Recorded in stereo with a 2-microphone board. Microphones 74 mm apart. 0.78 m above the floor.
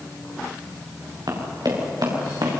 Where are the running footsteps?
65° right (ahead or behind), 7.5 m; by 2.6 s 70° right (ahead or behind), 6.5 m.